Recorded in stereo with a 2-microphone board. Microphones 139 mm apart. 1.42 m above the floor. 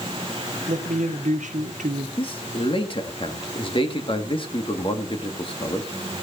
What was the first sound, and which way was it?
A man speaking, 65° right (ahead or behind).